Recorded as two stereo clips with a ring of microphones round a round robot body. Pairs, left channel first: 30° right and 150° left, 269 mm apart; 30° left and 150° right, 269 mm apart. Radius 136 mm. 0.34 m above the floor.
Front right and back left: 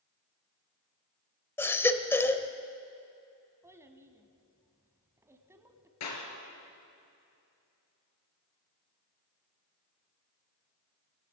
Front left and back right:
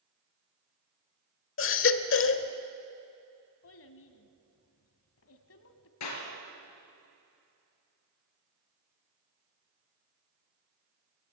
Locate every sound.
1.6 s a baby crying: 50° left, 1.0 m
3.6 s a child speaking: 70° left, 1.6 m
6.0 s a clap: straight ahead, 4.5 m